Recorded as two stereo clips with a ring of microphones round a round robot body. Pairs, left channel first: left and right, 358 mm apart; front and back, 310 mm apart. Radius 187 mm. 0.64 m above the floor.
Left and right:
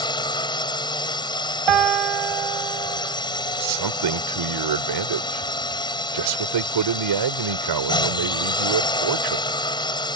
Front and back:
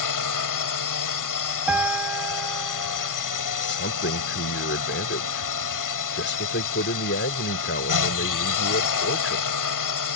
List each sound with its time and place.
0.0 s a drone: 10° left
1.7 s a piano: 95° right
3.6 s a man speaking: 60° right